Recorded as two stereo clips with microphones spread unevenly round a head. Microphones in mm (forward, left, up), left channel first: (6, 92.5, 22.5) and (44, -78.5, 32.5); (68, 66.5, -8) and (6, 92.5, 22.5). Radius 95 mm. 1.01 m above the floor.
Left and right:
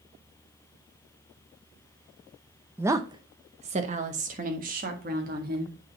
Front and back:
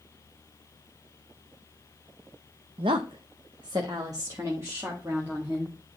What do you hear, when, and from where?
2.8 s a woman speaking: 160° right, 0.6 m; by 5.8 s 120° right, 1.9 m